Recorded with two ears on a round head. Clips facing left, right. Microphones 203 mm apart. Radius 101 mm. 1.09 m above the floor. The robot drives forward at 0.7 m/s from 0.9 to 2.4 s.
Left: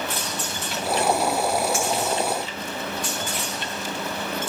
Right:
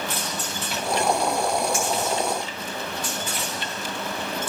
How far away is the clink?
About 8.5 m.